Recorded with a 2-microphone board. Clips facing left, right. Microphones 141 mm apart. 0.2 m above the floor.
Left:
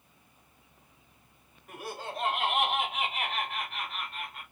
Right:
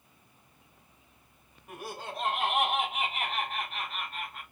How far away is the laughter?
About 1.5 m.